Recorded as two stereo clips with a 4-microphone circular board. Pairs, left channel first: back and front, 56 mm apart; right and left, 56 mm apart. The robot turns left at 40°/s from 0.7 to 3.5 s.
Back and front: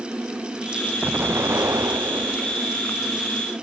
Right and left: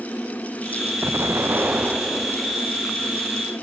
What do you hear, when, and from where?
1.0 s an explosion: 55° left; by 2.7 s 15° right